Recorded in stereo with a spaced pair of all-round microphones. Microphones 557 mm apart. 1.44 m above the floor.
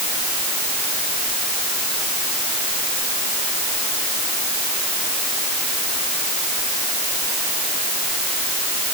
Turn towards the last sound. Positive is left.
No sound to turn to.